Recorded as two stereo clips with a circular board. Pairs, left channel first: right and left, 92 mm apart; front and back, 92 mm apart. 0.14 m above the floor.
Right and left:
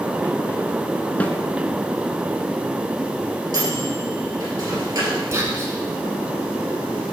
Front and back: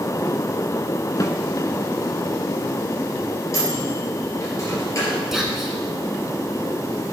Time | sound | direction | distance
1.2 | a snare drum | 25° right | 0.7 m
3.5 | a microwave | 50° left | 3 m
5.3 | whispering | 100° left | 1.5 m